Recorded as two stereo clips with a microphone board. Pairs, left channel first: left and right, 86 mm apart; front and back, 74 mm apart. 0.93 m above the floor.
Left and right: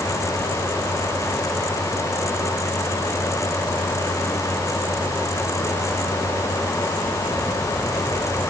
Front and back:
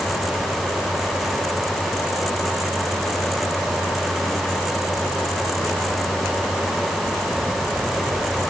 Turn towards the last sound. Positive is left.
No sound to turn to.